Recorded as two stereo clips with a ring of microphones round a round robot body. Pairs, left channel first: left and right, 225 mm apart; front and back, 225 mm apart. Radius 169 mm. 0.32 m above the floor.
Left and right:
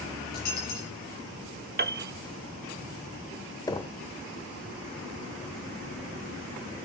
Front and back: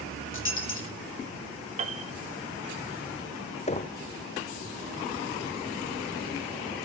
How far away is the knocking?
About 0.7 m.